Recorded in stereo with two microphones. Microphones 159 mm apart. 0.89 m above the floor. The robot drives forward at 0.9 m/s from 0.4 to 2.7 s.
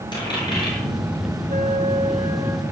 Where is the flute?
50° right (ahead or behind), 0.9 m; by 2.6 s 25° right (ahead or behind), 1.7 m.